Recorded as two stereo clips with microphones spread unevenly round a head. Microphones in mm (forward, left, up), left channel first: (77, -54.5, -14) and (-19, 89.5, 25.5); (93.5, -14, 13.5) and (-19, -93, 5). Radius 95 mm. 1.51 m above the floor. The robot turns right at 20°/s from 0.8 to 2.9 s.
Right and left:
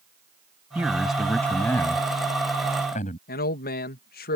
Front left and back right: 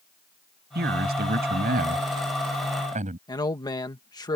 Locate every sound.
0.8 s a man speaking: 155° right; by 3.2 s 115° right
3.3 s a man speaking: 25° right